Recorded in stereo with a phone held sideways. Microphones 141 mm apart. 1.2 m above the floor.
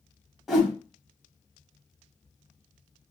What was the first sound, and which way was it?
A whoosh, centre (ahead or behind).